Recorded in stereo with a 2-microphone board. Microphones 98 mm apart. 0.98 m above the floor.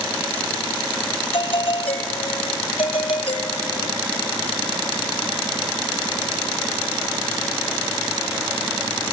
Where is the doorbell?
80° left, 6.5 m.